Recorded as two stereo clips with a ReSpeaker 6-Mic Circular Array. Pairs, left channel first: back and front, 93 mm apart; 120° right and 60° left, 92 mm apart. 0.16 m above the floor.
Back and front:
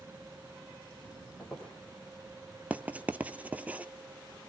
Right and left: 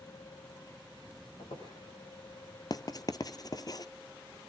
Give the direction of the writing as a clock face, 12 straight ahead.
2 o'clock.